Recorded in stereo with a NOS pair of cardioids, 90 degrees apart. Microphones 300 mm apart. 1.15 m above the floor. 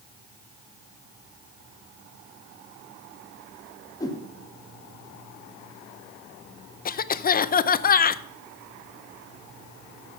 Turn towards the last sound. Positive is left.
turn(degrees=30)